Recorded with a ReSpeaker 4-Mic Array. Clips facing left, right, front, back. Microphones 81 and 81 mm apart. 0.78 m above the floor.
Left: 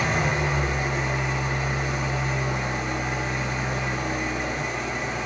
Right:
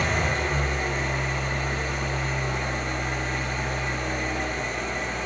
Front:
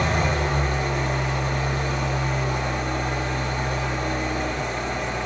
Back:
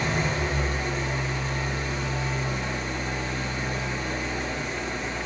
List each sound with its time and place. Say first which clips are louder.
0.0 s an engine running: left 1 dB, front 4 dB; 5° left, 1.1 m